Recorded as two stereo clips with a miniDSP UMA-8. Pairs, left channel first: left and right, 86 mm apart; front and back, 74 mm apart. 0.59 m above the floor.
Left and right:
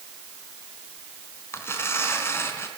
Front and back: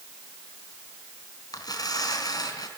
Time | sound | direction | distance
1.5 | tearing paper | 30° left | 4 m